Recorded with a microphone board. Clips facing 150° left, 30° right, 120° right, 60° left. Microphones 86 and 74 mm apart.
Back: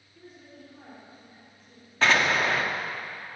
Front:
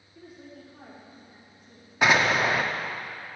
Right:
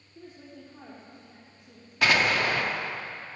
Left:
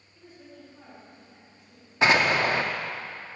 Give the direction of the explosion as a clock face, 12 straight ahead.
11 o'clock.